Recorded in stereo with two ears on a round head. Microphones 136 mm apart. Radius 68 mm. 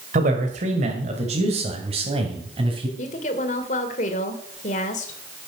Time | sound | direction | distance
0.1 | a man speaking | 55° right (ahead or behind) | 2 m
3.0 | a woman speaking | 50° left (ahead or behind) | 2.5 m